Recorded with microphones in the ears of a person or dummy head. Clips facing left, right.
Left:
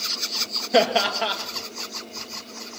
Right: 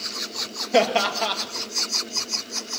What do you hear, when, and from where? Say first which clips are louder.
0.7 s laughter: even; 5° left (ahead or behind), 1.7 m